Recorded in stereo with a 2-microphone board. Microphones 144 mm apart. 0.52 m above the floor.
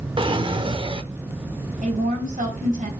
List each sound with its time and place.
0.2 s a drawer: 35° right (ahead or behind), 0.7 m
1.8 s a woman speaking: 70° right (ahead or behind), 4 m